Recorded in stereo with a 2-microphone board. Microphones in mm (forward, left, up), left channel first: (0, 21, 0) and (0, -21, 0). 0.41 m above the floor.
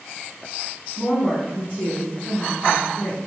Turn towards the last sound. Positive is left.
turn(degrees=35)  # may be behind; listen again after turning